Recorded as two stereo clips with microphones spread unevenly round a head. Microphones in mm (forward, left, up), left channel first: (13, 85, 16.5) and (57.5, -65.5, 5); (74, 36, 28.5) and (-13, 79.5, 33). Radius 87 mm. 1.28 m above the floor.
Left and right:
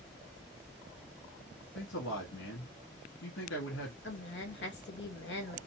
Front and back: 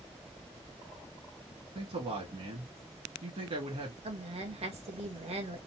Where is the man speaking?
125° left, 1.6 m.